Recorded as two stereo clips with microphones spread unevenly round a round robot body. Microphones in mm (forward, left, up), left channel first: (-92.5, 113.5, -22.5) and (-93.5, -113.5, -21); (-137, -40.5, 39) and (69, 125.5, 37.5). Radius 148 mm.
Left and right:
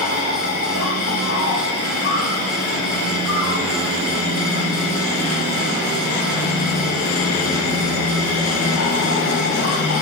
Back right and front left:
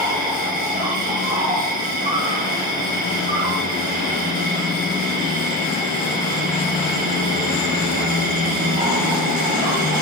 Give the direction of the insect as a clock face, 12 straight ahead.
9 o'clock.